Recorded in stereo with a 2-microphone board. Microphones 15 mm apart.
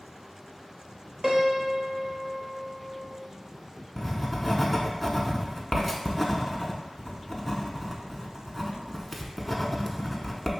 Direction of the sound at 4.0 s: 10° right (ahead or behind).